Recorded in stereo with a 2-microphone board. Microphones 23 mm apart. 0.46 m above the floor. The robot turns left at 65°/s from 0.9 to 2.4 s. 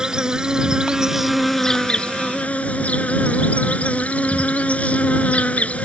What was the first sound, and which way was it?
An insect, 150° right.